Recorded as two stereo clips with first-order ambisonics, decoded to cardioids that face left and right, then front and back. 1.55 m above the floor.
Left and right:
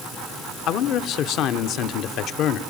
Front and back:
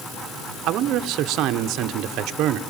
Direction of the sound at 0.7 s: 135° left.